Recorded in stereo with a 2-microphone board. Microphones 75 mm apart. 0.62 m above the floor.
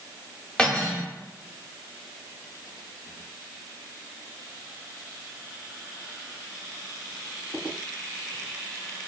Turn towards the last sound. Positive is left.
turn(degrees=15)  # may be behind; listen again after turning